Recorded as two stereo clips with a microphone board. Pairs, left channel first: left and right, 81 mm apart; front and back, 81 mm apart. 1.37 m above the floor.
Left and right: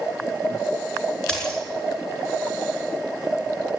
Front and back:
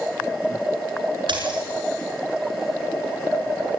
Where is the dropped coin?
170° left, 6.5 m.